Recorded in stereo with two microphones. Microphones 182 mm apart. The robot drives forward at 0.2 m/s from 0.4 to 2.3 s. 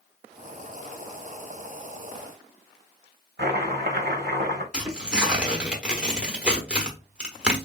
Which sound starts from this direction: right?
Chopping, at 3.4 s.